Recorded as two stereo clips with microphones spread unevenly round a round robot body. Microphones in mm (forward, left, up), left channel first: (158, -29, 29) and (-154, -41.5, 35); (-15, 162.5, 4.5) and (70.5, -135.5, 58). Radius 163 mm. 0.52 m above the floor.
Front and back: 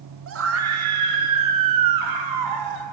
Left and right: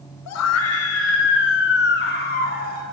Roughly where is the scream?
Behind left.